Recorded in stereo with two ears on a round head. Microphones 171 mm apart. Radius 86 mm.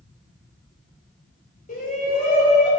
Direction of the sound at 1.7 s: 45° left (ahead or behind).